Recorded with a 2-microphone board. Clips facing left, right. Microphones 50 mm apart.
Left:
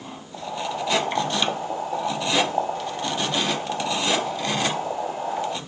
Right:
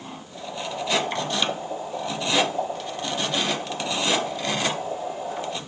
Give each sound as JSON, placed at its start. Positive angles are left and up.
{"t": 0.3, "sound": "boiling", "side_deg": 65, "distance_m": 1.7}